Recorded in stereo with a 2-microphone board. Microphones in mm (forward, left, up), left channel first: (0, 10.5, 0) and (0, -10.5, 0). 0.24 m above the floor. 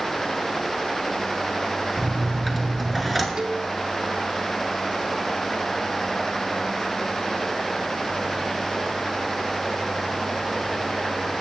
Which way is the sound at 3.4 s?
35° right (ahead or behind).